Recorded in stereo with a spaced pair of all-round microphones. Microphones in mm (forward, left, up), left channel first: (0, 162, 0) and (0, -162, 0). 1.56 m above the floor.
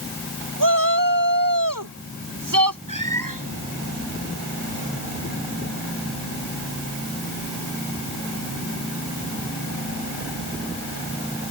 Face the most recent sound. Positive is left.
turn(degrees=-75)  # may be behind; listen again after turning